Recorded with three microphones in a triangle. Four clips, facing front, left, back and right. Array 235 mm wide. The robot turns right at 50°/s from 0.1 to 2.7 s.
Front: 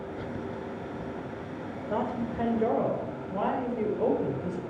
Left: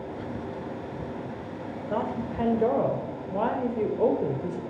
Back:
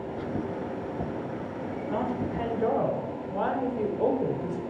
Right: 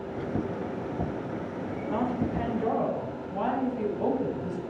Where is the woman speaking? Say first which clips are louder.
Right 1 dB, even; 55° left, 1.8 m; by 4.6 s 95° left, 1.8 m.